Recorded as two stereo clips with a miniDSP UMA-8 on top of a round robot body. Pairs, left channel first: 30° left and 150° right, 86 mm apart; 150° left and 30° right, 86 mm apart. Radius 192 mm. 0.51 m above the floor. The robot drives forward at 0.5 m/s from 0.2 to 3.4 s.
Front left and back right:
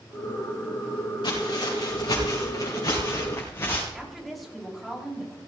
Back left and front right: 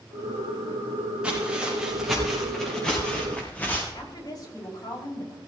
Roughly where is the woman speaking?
Behind left.